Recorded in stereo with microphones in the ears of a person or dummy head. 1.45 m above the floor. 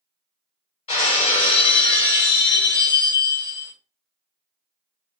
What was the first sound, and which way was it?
Breaking glass, 30° left (ahead or behind).